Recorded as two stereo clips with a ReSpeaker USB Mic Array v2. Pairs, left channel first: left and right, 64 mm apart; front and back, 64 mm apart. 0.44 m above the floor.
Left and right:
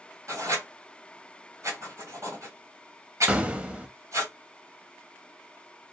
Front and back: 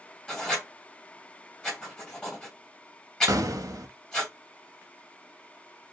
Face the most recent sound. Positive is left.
turn(degrees=-160)